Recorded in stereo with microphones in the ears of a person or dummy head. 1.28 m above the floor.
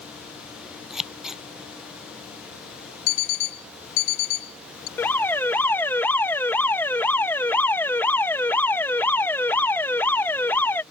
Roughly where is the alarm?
Centre.